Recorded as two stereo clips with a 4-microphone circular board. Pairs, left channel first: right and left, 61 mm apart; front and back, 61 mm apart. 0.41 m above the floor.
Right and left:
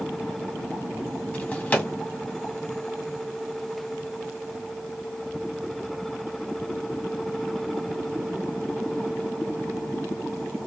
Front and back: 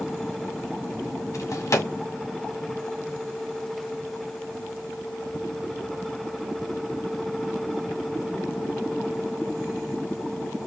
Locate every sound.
1.3 s a drawer: 25° right, 1.9 m